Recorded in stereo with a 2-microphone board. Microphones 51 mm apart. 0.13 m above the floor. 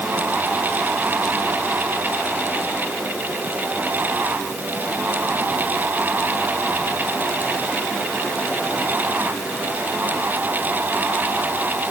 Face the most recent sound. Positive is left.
No sound to turn to.